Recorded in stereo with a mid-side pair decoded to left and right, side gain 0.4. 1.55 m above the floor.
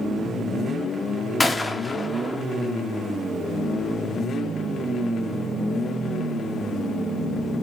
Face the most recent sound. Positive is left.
turn(degrees=20)